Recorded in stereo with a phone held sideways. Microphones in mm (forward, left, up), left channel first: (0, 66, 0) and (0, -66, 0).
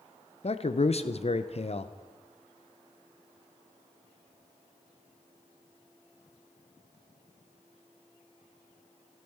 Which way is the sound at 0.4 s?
50° left (ahead or behind).